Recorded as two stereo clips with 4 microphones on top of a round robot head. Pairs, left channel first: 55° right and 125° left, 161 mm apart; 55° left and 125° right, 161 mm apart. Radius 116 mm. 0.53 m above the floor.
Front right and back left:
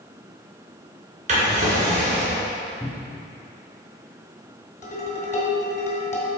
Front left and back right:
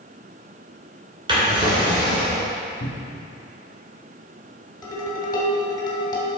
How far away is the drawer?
About 3 m.